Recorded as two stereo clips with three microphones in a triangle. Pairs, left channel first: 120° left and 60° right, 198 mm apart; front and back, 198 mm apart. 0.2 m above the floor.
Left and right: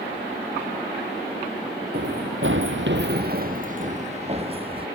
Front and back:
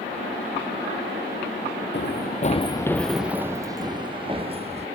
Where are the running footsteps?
25° right; by 4.9 s 120° right.